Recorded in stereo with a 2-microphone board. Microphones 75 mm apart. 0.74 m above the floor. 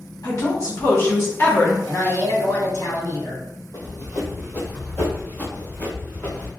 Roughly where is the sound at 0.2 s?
Left.